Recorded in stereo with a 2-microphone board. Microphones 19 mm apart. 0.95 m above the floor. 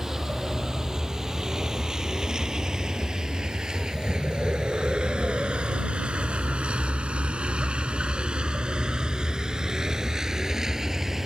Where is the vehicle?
25° right (ahead or behind).